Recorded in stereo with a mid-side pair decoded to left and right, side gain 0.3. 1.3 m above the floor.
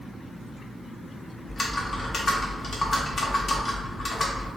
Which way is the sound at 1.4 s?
55° left.